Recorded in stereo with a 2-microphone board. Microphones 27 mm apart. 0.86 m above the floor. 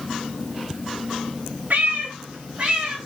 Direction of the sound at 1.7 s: 75° right (ahead or behind).